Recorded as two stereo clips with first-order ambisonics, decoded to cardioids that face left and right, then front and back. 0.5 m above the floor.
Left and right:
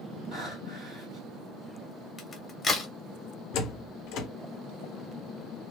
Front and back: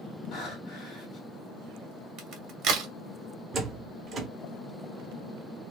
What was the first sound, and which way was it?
Breathing, 30° right.